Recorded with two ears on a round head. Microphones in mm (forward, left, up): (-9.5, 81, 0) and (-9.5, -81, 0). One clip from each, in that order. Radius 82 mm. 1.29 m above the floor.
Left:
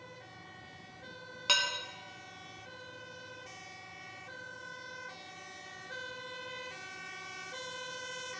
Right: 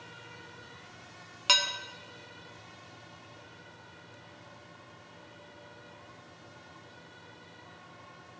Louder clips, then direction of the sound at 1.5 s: Right 3 dB; 25° right (ahead or behind).